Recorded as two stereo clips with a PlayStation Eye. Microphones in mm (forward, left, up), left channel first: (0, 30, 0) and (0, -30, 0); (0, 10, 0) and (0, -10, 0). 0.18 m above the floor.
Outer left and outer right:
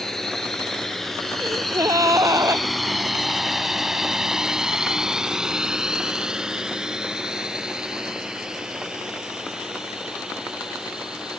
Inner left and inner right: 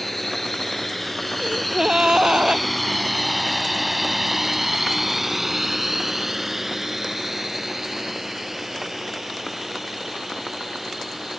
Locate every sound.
0.0 s a drone: 5° left (ahead or behind); by 11.4 s 10° right (ahead or behind)
1.4 s a gasp: 65° right (ahead or behind)